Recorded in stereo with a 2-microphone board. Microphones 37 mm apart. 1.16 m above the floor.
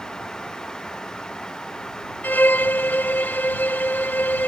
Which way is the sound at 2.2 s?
60° left (ahead or behind).